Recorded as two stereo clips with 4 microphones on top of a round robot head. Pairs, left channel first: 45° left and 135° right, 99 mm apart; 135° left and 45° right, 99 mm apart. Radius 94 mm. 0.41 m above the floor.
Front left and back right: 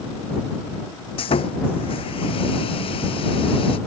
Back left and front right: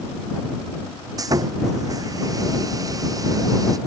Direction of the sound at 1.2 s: 10° left.